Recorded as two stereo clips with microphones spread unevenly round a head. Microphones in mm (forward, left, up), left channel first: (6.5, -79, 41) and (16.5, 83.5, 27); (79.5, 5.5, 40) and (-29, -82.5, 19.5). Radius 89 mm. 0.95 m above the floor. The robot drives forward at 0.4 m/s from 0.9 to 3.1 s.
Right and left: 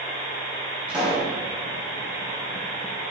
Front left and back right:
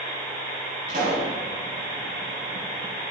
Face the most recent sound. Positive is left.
turn(degrees=175)